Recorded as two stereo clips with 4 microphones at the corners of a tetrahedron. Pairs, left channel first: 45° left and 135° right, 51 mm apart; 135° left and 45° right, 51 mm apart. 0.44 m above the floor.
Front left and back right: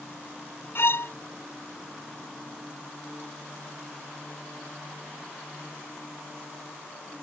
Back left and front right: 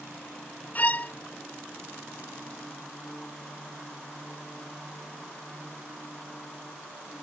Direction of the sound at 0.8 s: 80° left.